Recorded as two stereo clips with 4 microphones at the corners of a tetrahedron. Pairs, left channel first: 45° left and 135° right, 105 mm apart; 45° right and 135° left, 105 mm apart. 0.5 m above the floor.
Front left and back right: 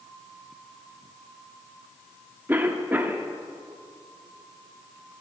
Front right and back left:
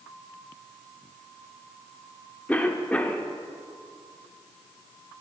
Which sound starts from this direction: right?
A cough, at 2.5 s.